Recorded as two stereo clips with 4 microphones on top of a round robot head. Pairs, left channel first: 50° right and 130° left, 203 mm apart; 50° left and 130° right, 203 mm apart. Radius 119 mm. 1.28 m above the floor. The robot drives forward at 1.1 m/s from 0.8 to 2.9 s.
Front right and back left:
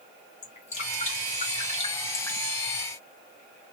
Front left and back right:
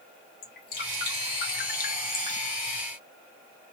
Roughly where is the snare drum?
I don't hear a snare drum.